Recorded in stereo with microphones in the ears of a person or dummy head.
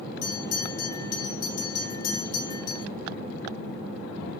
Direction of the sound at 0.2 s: 30° left (ahead or behind).